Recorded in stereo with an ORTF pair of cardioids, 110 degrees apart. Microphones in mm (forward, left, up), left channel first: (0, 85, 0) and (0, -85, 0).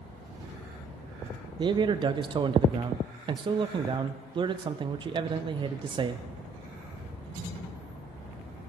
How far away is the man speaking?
About 0.5 m.